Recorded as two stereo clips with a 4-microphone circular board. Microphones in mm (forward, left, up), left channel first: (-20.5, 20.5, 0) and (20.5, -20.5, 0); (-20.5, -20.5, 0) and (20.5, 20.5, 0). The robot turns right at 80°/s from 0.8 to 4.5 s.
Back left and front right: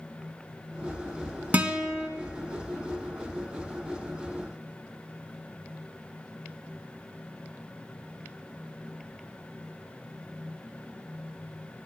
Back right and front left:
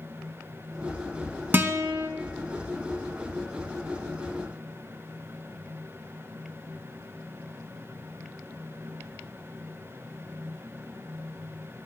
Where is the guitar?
10° left, 1.3 m; by 2.1 s 50° left, 1.3 m.